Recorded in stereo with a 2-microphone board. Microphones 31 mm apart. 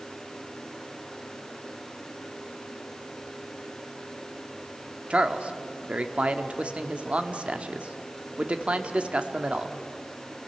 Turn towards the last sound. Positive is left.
turn(degrees=-40)  # may be behind; listen again after turning